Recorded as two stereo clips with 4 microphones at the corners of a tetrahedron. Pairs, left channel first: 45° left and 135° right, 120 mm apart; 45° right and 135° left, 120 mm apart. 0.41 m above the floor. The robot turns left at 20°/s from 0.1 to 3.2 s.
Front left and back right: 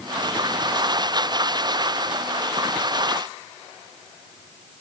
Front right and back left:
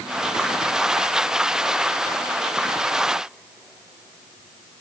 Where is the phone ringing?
No phone ringing in this recording.